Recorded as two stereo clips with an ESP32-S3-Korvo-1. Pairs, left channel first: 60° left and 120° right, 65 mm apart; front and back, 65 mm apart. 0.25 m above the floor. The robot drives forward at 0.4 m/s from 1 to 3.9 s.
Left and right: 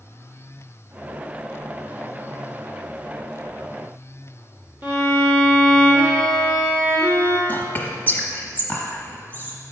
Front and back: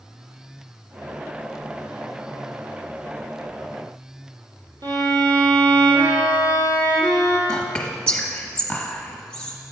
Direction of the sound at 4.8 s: Straight behind.